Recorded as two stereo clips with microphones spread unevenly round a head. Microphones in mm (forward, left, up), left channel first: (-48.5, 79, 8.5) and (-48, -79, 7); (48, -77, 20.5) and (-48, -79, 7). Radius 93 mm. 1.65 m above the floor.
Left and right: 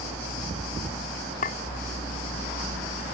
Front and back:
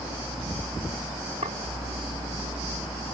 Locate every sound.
1.4 s a clink: 120° left